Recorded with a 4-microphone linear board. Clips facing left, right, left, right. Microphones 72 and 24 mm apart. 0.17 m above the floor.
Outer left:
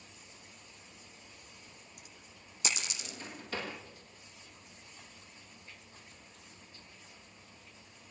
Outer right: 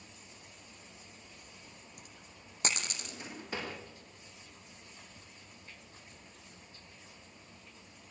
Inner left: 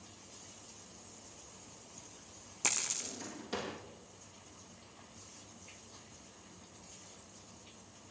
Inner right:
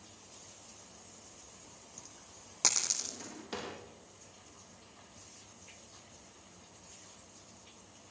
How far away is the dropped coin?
About 3.5 m.